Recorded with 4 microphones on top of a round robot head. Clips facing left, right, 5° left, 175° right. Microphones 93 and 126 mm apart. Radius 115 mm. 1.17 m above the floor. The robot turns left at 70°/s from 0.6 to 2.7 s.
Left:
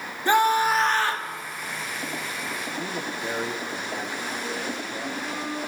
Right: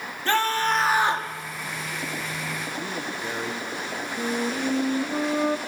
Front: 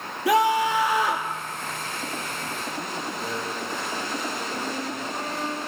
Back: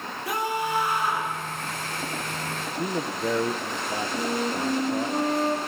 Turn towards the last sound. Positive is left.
turn(degrees=-120)